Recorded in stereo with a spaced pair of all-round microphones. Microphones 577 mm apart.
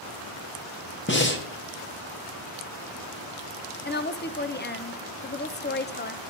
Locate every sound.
1.1 s breathing: 20° left (ahead or behind), 0.9 m
3.9 s a woman speaking: 20° left (ahead or behind), 0.5 m